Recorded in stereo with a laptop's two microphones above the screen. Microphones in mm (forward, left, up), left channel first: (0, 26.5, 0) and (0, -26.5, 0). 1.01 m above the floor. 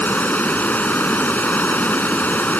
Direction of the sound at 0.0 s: 35° left (ahead or behind).